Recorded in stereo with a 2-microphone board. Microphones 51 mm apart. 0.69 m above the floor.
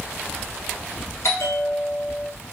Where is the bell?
65° left (ahead or behind), 0.9 m.